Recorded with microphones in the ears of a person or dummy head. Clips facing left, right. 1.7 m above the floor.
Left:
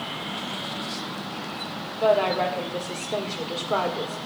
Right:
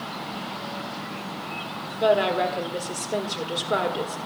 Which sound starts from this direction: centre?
A woman speaking, at 1.9 s.